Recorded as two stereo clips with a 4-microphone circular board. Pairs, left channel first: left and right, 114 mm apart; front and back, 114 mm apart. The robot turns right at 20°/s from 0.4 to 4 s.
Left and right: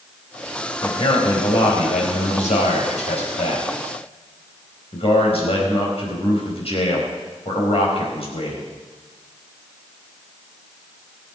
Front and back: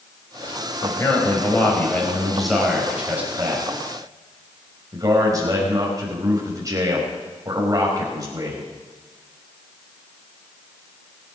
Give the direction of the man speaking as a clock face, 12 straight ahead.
10 o'clock.